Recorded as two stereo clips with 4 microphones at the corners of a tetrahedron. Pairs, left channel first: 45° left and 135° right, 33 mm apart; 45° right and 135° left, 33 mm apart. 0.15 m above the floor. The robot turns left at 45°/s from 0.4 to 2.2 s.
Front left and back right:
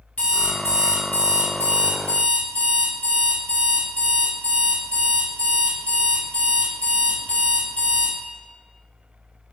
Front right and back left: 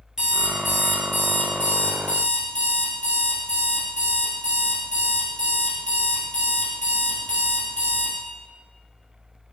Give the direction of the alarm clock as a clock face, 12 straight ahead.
10 o'clock.